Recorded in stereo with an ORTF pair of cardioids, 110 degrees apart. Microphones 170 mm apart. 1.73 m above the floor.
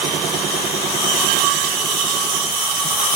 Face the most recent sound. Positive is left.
No sound to turn to.